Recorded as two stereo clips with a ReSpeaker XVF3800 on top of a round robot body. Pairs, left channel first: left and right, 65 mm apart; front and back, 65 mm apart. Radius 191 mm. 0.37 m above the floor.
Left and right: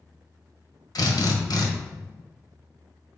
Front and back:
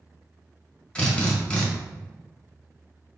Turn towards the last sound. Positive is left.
turn(degrees=75)